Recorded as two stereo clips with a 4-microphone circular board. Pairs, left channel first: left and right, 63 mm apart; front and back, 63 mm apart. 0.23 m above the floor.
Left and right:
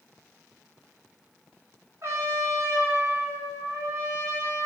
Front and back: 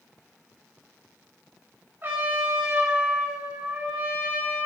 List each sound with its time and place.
2.0 s a trumpet: 125° right, 2.5 m